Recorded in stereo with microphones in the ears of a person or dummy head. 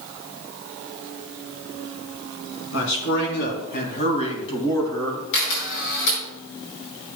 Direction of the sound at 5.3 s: 70° left (ahead or behind).